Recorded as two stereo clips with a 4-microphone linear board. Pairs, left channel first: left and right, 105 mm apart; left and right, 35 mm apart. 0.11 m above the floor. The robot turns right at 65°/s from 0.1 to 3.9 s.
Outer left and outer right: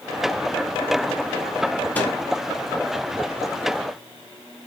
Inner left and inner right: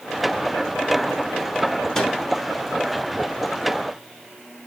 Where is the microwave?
15° left (ahead or behind), 0.9 m; by 2.1 s 20° left (ahead or behind), 0.9 m.